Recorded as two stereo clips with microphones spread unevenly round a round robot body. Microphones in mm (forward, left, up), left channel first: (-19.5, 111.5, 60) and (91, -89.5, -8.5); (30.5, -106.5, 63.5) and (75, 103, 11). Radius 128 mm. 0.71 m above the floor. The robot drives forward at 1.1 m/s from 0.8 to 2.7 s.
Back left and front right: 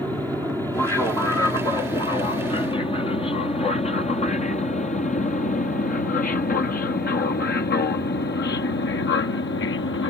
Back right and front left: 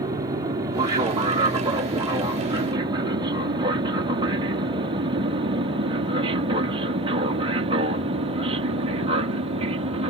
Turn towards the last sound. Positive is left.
turn(degrees=95)